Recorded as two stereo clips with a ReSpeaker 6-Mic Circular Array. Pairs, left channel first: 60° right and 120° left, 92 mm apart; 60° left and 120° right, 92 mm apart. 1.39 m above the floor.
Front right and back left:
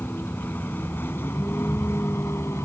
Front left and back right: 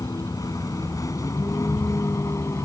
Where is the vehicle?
10° left; by 2.6 s straight ahead.